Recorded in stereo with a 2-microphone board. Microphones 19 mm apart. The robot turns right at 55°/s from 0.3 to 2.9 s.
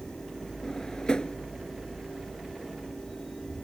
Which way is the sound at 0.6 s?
25° left (ahead or behind).